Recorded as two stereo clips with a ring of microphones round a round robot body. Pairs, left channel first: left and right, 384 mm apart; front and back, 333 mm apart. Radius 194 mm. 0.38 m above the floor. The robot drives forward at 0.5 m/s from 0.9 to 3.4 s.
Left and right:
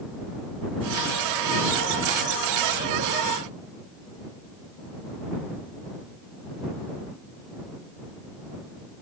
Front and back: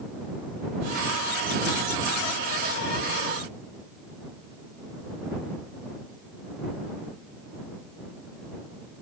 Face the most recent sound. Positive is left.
No sound to turn to.